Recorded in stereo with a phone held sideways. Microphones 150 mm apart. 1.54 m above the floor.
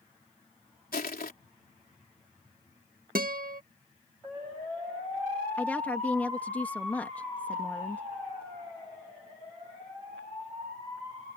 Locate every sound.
0.9 s crushing: 90° left
3.1 s a guitar: 75° right (ahead or behind)
5.6 s a woman speaking: 10° left (ahead or behind)